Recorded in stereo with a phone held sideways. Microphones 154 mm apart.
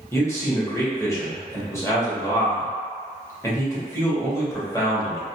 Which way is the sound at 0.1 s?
15° left (ahead or behind).